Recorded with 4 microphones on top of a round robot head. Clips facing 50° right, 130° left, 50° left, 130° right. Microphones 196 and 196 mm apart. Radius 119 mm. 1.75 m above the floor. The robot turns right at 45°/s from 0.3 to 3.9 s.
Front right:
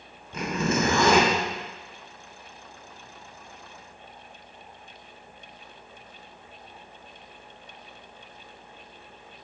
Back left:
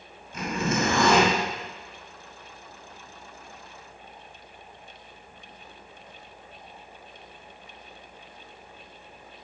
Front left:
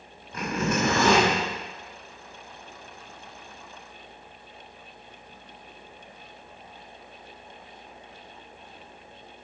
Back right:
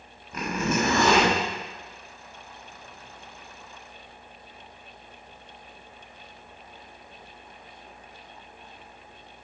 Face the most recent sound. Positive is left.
turn(degrees=95)